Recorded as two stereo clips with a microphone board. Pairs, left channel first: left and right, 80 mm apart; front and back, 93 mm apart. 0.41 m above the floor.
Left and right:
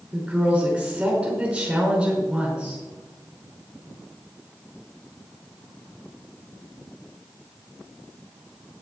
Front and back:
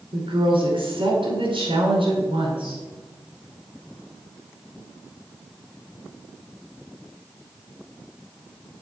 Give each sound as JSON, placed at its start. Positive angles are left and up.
{"t": 0.1, "sound": "a woman speaking", "azimuth_deg": -165, "distance_m": 5.5}